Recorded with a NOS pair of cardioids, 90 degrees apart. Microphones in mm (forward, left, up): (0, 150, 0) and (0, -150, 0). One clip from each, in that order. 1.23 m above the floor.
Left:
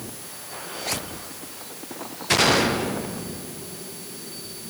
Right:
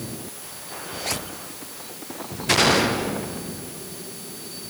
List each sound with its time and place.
Only background noise.